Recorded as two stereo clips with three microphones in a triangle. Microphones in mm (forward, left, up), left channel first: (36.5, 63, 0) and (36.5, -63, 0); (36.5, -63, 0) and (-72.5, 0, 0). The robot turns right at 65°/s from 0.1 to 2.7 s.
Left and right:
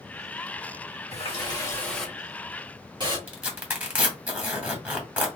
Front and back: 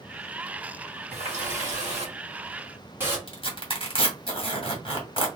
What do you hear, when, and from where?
1.1 s a running tap: 120° left, 1.7 m; by 3.2 s 135° right, 1.7 m
3.3 s tearing paper: 15° right, 1.8 m